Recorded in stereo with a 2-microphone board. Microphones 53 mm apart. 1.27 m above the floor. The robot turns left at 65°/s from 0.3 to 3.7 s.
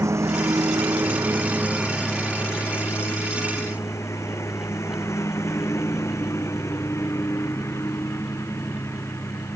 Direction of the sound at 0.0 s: 65° right (ahead or behind).